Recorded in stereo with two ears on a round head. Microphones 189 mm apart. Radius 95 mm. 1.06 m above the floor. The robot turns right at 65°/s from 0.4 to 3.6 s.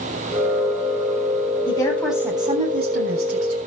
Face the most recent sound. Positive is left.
turn(degrees=-80)